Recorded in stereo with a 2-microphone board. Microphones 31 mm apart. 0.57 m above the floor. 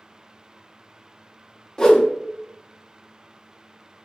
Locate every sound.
1.8 s a whoosh: 20° left (ahead or behind), 0.6 m